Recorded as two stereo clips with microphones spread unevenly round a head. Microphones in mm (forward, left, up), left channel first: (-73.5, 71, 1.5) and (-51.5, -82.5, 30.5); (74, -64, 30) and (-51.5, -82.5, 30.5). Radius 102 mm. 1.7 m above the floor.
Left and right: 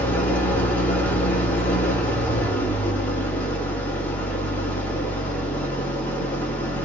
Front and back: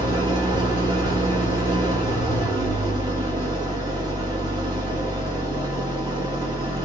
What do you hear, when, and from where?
0.0 s an engine running: 170° right, 1.2 m